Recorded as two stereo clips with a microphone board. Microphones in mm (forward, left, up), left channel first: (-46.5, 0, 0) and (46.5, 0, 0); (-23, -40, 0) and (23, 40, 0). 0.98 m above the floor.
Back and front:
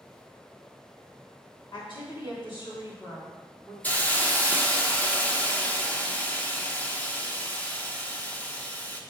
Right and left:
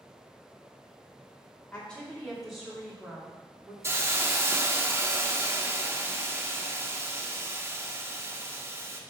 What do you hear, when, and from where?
1.7 s a woman speaking: 160° left, 2.5 m; by 3.7 s 130° left, 2.0 m
3.8 s a hiss: 110° left, 0.7 m